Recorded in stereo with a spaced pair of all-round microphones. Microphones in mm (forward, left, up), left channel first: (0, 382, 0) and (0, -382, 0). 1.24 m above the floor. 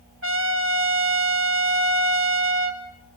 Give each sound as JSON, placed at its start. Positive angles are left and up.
{"t": 0.2, "sound": "a trumpet", "side_deg": -15, "distance_m": 2.0}